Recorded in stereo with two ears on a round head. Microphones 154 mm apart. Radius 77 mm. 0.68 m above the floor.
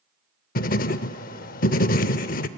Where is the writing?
50° left (ahead or behind), 0.6 m.